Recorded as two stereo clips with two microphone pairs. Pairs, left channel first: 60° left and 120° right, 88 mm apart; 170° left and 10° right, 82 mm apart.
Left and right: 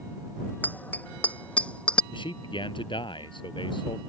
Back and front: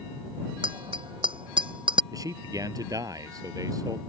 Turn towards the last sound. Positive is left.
turn(degrees=35)